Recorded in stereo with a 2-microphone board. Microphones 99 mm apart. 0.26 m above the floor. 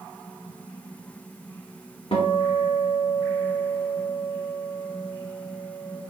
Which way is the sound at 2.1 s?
70° left (ahead or behind).